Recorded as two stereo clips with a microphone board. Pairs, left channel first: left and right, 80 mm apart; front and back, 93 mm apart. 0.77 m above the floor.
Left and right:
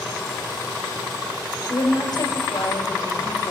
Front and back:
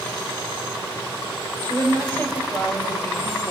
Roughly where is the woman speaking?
Ahead left.